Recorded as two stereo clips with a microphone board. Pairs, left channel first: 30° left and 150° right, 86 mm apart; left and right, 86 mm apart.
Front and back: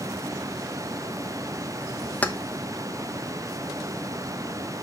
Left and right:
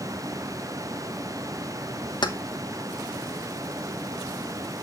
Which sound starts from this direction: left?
Keys jangling, at 2.2 s.